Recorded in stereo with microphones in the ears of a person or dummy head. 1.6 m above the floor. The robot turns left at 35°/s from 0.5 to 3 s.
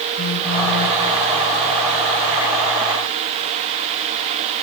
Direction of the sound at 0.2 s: 60° left (ahead or behind).